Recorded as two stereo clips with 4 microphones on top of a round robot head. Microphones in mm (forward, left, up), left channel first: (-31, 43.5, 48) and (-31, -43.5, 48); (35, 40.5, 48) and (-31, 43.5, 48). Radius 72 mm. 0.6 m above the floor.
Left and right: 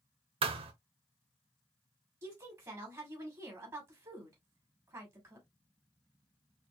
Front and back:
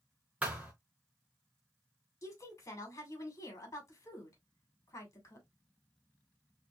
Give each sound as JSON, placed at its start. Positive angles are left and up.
{"t": 0.4, "sound": "a thud", "azimuth_deg": -105, "distance_m": 0.8}
{"t": 2.2, "sound": "a woman speaking", "azimuth_deg": -40, "distance_m": 2.5}